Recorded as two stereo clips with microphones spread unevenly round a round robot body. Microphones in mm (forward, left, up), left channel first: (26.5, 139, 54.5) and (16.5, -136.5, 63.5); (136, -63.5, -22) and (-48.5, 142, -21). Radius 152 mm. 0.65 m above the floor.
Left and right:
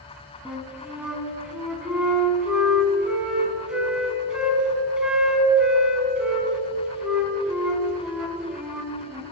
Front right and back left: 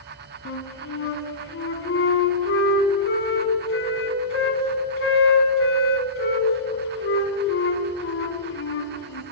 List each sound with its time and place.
0.5 s a flute: 5° right, 1.1 m